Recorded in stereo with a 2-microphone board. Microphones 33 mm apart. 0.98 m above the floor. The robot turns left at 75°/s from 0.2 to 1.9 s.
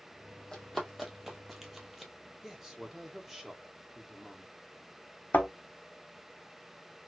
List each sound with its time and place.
0.5 s running footsteps: 25° left (ahead or behind), 1.4 m; by 2.1 s centre (ahead or behind), 1.0 m
2.4 s a man speaking: 10° right (ahead or behind), 1.0 m
5.3 s a thud: 70° left (ahead or behind), 1.0 m